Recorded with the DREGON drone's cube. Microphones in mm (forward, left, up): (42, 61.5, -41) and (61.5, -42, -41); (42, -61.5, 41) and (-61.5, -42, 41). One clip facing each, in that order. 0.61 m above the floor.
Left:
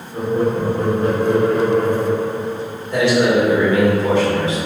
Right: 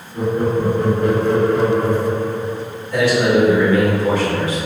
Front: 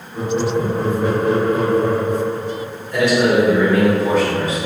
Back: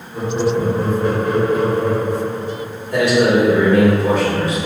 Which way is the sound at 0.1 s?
100° left.